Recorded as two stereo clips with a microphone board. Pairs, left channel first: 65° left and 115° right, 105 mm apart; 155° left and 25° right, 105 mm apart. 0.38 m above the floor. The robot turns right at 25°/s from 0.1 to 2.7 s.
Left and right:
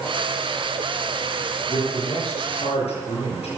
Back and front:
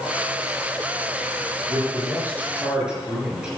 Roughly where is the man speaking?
Ahead left.